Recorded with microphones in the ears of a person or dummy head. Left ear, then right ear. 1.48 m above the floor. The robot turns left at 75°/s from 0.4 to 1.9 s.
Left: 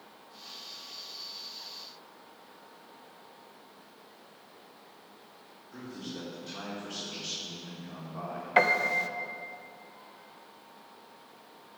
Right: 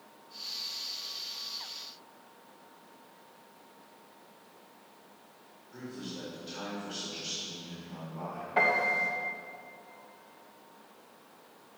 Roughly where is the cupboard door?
No cupboard door in this recording.